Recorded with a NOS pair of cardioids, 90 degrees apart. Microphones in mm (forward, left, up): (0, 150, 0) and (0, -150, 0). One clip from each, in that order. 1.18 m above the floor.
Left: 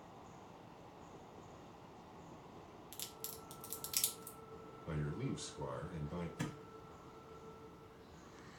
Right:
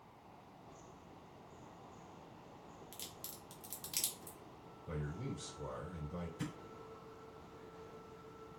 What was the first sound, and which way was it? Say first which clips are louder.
A crack: left 2 dB; 10° left.